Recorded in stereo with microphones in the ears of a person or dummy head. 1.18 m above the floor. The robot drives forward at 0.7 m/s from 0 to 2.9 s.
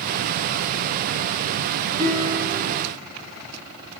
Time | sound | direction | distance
2.0 | a guitar | 35° right (ahead or behind) | 5 m